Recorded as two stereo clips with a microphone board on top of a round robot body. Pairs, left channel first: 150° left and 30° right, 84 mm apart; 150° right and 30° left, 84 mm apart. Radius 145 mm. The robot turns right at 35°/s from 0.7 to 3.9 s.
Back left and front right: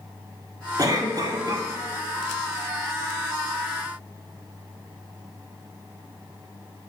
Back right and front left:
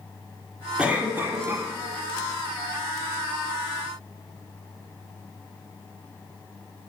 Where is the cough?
45° right, 1.8 m; by 1.7 s 10° right, 1.8 m.